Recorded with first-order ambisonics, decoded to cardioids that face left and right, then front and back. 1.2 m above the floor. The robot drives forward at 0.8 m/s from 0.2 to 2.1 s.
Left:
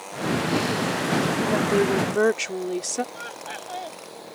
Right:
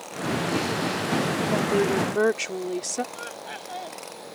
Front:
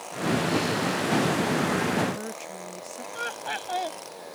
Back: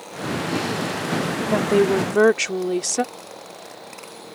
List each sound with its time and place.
1.5 s a woman speaking: 175° left
3.1 s laughter: 5° left